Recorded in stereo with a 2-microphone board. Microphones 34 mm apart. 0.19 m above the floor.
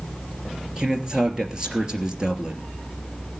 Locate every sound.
0.8 s a man speaking: 20° right (ahead or behind), 3 m